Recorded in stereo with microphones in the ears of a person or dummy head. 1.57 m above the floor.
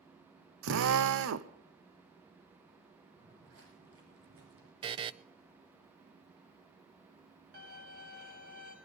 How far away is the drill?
About 0.9 m.